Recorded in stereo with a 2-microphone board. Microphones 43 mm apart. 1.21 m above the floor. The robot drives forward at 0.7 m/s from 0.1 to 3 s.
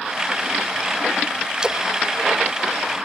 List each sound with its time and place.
1.6 s a splash: 25° right (ahead or behind)